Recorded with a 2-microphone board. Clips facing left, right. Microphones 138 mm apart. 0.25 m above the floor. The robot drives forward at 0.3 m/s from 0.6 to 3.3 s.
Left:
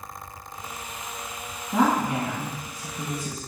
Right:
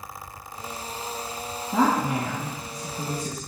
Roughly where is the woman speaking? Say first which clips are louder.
Even; centre.